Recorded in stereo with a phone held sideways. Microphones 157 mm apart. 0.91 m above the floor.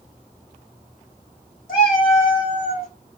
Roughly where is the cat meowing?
Left.